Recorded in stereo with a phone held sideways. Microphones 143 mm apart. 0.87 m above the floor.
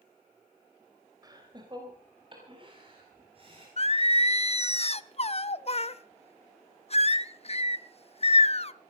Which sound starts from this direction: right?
Laughter, at 1.2 s.